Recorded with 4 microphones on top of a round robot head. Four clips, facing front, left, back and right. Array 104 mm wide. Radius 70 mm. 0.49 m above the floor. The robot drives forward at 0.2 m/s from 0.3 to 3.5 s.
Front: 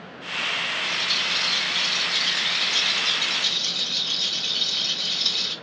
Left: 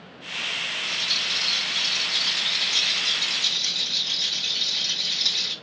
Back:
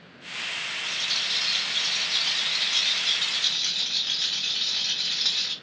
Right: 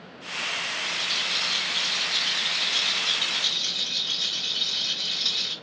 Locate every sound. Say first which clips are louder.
0.8 s a rattle: even, front 6 dB; 140° left, 1.6 m; by 5.5 s 150° left, 2 m